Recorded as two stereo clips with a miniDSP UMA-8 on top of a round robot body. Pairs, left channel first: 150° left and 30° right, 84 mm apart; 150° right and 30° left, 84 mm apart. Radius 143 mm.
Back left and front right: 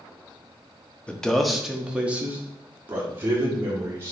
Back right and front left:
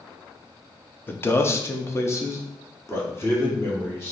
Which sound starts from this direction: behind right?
A man speaking, at 1.1 s.